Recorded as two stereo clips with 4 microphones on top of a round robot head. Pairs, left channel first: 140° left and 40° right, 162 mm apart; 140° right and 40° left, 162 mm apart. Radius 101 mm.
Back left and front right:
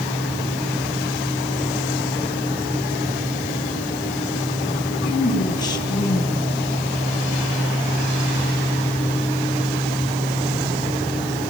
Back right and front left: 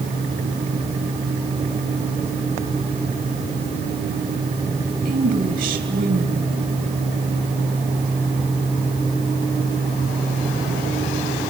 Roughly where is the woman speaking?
Left.